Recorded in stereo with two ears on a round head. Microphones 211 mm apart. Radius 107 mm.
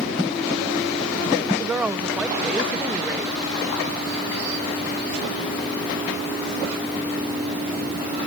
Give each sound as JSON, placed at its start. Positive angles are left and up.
{"t": 1.6, "sound": "a woman speaking", "side_deg": -5}